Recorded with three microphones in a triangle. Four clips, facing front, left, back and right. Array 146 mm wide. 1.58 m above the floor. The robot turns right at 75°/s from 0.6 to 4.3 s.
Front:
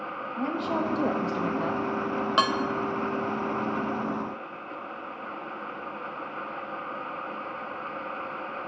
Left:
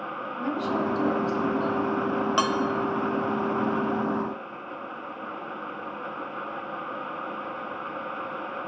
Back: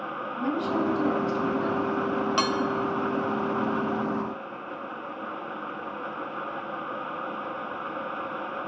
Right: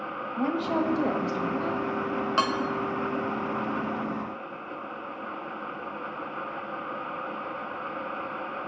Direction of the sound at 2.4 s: 10° left.